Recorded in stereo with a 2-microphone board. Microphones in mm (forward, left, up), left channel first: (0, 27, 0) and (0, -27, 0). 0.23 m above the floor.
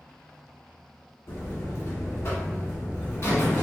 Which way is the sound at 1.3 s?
55° left (ahead or behind).